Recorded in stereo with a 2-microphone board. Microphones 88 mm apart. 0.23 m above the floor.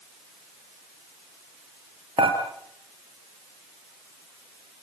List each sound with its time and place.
2.2 s dishes clattering: 70° right (ahead or behind), 3.5 m